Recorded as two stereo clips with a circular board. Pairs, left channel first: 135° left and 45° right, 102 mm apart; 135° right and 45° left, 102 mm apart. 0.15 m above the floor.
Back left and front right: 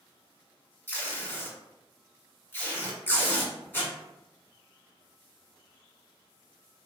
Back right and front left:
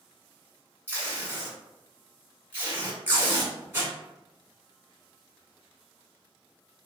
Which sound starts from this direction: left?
Tape being pulled, at 0.9 s.